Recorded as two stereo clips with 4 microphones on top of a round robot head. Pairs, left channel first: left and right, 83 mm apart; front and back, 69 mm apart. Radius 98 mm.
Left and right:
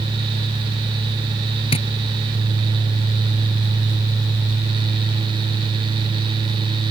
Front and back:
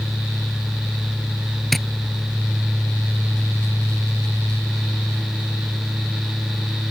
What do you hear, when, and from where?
1.7 s tapping: 85° left